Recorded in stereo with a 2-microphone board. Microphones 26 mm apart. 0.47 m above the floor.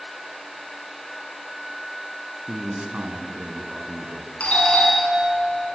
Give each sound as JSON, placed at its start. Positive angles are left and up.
{"t": 2.5, "sound": "a man speaking", "side_deg": -55, "distance_m": 4.0}
{"t": 4.4, "sound": "a doorbell", "side_deg": 55, "distance_m": 7.5}